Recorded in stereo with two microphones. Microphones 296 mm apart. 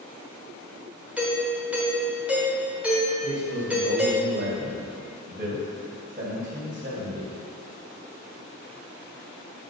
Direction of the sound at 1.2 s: 5° right (ahead or behind).